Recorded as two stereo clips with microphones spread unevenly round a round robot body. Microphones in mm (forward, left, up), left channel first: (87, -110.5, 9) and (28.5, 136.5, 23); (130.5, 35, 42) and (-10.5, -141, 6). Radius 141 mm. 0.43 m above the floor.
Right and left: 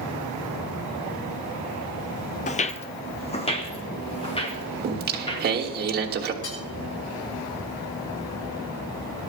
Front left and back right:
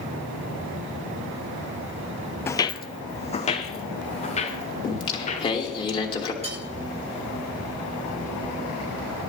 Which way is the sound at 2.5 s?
20° right.